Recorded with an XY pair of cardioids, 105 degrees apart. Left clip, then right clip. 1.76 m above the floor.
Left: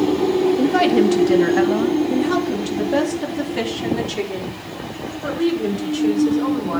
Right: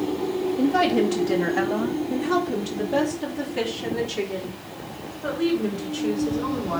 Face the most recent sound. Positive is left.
turn(degrees=40)